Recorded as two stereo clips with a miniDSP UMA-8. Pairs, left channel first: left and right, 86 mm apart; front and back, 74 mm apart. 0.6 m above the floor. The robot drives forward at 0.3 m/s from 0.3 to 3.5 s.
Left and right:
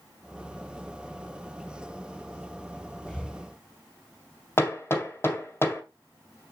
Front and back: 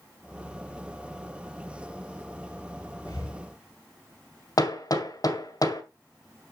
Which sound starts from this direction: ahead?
Breathing, at 3.1 s.